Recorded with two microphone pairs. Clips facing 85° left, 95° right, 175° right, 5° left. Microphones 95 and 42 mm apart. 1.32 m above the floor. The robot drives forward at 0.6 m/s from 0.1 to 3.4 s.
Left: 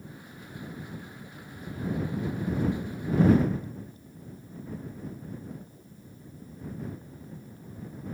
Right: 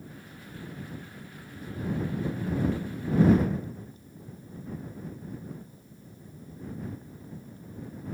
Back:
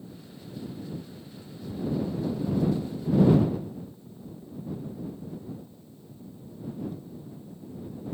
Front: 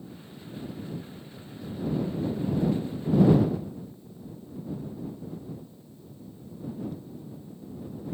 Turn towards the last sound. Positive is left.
No sound to turn to.